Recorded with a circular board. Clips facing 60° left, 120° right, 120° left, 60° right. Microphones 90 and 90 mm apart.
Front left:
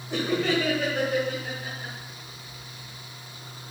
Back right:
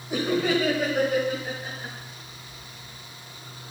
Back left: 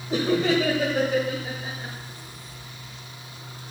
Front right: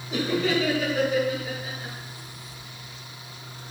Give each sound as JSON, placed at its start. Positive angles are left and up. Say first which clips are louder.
{"t": 0.1, "sound": "laughter", "louder": "back right 1 dB, back left 3 dB", "azimuth_deg": 165, "distance_m": 1.5}